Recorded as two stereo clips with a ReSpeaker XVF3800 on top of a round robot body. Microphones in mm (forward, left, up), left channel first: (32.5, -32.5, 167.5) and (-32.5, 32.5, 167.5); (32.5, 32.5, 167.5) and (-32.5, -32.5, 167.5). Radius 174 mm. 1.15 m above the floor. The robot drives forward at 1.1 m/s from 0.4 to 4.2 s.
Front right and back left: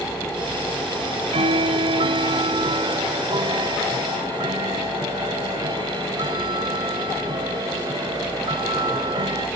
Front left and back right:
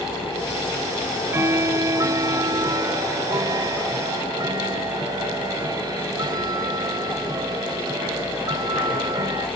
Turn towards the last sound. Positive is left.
turn(degrees=175)